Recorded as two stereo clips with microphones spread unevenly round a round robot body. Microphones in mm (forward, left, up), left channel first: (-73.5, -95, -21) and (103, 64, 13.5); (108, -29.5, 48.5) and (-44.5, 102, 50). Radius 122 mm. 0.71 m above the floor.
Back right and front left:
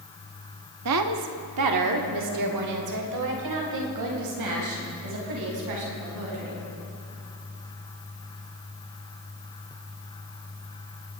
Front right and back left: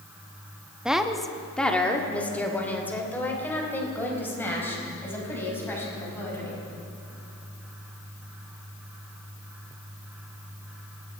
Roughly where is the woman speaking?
Ahead left.